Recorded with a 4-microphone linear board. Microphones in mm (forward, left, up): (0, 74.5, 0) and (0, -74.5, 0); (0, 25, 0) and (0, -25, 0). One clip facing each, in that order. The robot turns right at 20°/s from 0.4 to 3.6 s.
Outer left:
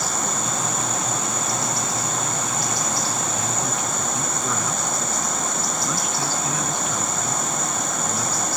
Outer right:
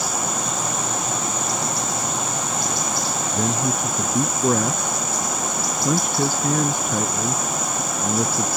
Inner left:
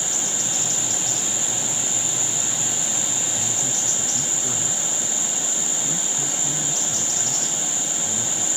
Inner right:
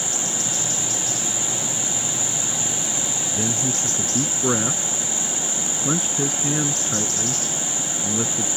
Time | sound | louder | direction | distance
3.3 | a man speaking | outer right 4 dB, inner right 4 dB | 55° right (ahead or behind) | ?